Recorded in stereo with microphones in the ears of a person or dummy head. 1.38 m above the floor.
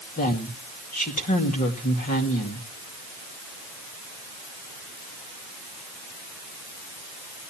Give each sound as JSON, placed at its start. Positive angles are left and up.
{"t": 0.2, "sound": "a woman speaking", "side_deg": 40, "distance_m": 2.0}